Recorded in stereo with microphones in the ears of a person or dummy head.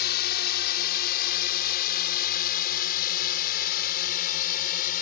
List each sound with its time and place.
0.0 s a drone: 55° left (ahead or behind); by 5.0 s 45° left (ahead or behind)